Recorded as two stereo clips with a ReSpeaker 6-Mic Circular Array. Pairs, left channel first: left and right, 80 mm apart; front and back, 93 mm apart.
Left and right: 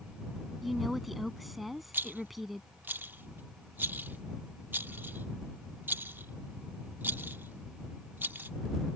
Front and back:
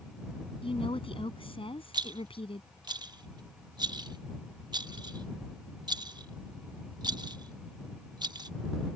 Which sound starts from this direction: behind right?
A rattle, at 1.9 s.